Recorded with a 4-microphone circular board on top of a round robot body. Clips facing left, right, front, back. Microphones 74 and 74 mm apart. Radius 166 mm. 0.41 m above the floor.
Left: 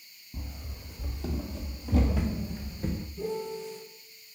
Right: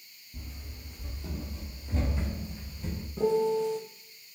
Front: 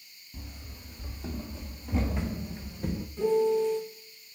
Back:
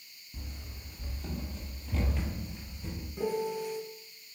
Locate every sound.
0.3 s running footsteps: 90° left, 1.8 m; by 3.1 s 25° left, 0.5 m
3.2 s a piano: 100° right, 0.9 m